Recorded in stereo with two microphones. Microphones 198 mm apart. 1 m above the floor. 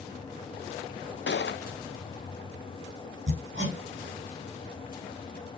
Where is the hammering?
70° right (ahead or behind), 5 m.